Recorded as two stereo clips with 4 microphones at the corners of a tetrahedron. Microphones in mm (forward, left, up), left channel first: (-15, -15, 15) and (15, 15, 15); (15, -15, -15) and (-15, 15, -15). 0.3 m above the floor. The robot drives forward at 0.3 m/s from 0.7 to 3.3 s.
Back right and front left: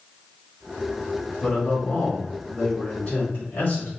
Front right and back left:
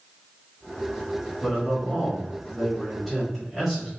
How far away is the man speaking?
About 1.3 m.